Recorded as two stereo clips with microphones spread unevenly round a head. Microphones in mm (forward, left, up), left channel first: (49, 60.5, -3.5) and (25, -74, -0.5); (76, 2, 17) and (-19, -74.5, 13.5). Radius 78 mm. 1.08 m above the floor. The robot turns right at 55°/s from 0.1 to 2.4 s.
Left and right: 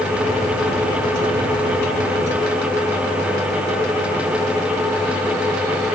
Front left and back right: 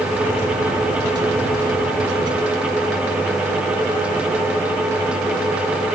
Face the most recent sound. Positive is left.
No sound to turn to.